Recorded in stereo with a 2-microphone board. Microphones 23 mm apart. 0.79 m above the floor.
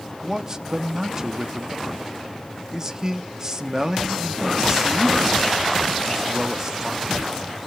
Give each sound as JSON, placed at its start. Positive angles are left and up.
{"t": 0.2, "sound": "a man speaking", "side_deg": -25, "distance_m": 0.9}